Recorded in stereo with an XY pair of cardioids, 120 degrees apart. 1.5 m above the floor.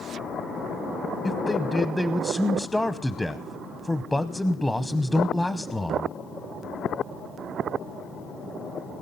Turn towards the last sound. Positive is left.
turn(degrees=10)